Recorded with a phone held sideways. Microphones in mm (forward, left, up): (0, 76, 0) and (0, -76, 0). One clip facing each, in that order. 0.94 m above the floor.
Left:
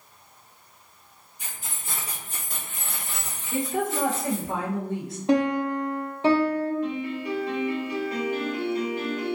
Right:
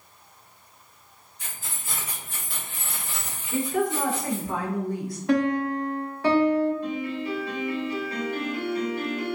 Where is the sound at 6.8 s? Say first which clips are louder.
Even; 15° left (ahead or behind), 1.1 m.